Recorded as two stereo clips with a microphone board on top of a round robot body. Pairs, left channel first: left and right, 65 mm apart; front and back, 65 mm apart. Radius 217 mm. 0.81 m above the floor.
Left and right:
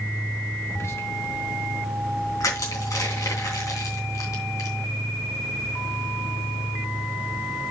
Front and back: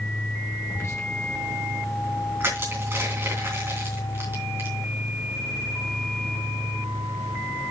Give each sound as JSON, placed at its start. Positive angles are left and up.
{"t": 0.7, "sound": "whispering", "azimuth_deg": 50, "distance_m": 2.5}
{"t": 2.4, "sound": "crushing", "azimuth_deg": 125, "distance_m": 3.0}